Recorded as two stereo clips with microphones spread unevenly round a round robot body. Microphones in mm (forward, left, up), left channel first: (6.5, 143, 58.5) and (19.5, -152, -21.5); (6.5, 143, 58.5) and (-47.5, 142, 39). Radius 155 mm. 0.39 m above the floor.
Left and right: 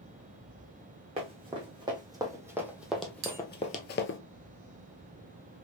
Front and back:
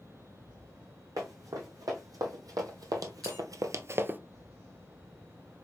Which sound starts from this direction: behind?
Running footsteps, at 1.2 s.